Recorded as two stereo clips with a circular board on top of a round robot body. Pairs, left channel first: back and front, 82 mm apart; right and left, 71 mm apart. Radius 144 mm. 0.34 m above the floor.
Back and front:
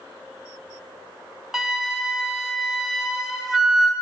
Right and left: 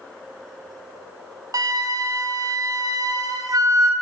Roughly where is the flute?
Left.